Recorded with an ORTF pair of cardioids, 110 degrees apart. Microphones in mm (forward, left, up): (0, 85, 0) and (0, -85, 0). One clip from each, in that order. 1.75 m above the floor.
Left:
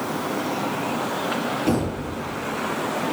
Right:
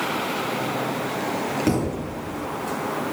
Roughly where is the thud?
Ahead right.